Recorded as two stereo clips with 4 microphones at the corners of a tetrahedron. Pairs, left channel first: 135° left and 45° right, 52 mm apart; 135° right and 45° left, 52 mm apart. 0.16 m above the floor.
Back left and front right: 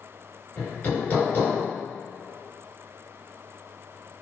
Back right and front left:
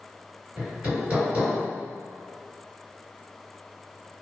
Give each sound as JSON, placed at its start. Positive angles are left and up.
{"t": 0.6, "sound": "hammering", "azimuth_deg": 100, "distance_m": 1.5}